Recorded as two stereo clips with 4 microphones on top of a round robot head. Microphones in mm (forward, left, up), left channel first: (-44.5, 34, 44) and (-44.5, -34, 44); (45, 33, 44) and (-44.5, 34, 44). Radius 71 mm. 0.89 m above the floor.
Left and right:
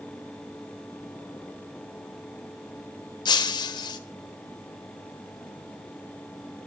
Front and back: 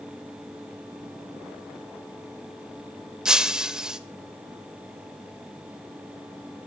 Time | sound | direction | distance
3.2 | breaking glass | 95° left | 1.4 m